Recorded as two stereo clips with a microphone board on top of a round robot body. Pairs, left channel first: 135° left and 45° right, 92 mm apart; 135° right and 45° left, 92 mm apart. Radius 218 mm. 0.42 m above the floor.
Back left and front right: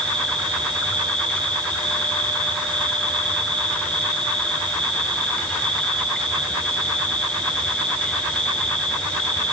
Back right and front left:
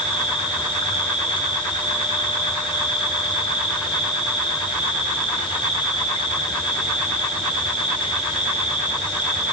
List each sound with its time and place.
0.0 s an insect: 145° right, 4.5 m